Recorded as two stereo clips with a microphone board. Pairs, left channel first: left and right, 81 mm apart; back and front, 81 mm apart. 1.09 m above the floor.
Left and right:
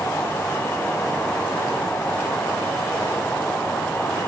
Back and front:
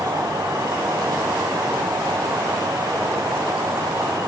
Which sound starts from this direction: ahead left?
An insect, at 0.0 s.